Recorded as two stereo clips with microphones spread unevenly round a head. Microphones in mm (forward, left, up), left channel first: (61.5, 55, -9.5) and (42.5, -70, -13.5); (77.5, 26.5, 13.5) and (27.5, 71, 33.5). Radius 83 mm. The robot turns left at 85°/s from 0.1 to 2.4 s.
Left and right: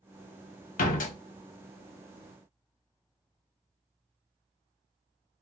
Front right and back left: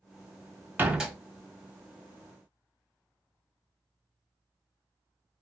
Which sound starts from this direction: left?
A door slam, at 0.8 s.